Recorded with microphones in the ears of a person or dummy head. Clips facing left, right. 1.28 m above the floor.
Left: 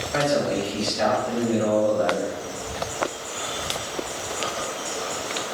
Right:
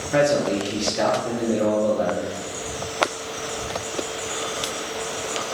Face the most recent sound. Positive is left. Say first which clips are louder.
# right 3 dB
turn(degrees=-70)  # may be behind; listen again after turning